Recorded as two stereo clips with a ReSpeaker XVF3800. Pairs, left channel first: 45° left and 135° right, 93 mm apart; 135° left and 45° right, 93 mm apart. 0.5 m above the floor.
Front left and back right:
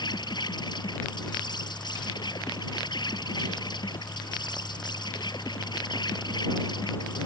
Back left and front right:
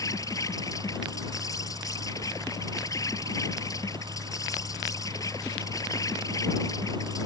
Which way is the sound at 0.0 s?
85° left.